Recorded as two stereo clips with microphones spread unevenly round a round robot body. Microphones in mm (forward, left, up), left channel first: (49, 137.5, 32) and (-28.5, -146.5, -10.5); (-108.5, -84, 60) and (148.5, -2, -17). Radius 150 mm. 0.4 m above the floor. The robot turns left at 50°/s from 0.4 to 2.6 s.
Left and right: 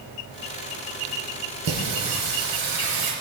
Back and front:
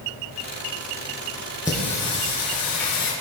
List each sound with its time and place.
1.6 s singing: 65° right, 4.5 m; by 3.1 s 115° right, 4.5 m